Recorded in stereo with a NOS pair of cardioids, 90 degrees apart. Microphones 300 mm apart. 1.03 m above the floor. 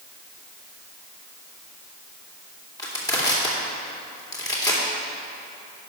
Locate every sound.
2.8 s crushing: 10° left, 2.5 m